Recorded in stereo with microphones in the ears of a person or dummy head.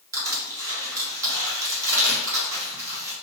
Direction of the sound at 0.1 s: 20° right (ahead or behind).